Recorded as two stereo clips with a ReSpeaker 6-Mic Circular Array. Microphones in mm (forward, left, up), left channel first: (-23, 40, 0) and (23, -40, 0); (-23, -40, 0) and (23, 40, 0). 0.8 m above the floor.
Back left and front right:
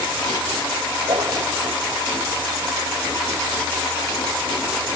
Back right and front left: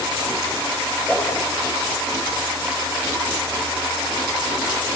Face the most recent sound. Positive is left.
turn(degrees=-40)